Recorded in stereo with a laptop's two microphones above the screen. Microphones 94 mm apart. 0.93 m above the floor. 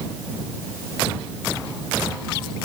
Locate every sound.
Only background noise.